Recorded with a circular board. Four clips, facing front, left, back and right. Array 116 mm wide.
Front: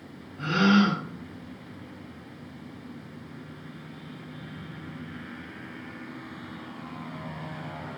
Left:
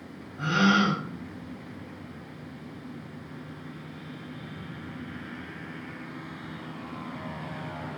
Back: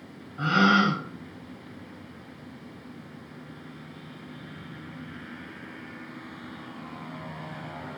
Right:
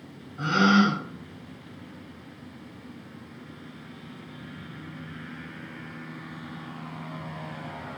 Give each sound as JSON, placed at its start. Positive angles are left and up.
{"t": 0.4, "sound": "a gasp", "azimuth_deg": -165, "distance_m": 0.6}